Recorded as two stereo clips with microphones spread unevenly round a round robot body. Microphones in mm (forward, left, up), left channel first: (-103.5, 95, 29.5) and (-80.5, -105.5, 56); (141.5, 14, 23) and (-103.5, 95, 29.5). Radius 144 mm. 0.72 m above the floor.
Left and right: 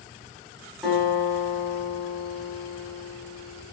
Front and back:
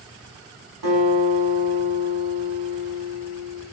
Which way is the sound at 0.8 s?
175° right.